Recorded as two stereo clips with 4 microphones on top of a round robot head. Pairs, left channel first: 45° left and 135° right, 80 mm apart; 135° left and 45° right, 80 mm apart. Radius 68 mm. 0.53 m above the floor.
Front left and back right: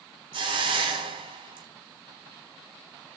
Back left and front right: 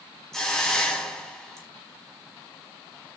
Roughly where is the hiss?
Behind right.